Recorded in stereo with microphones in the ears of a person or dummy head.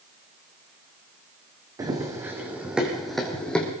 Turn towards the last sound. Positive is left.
turn(degrees=15)  # may be behind; listen again after turning